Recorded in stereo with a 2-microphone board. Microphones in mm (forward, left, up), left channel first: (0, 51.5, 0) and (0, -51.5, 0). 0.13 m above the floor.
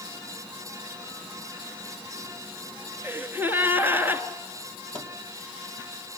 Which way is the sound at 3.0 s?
20° right (ahead or behind).